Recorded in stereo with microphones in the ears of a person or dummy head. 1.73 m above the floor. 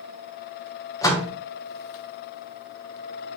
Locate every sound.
1.0 s a door slam: 20° left (ahead or behind), 1.5 m